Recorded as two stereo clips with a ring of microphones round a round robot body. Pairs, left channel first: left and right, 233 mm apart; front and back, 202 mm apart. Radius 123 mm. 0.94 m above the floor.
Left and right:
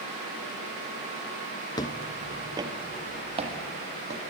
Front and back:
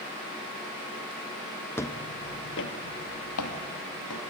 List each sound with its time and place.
1.8 s footsteps: 55° left, 0.9 m; by 4.2 s 25° right, 3.5 m